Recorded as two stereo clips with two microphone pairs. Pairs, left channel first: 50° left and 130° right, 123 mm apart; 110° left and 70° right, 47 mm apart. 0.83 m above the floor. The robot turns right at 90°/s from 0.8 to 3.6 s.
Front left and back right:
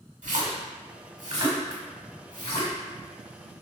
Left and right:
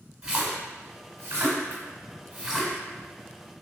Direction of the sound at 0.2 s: 140° right.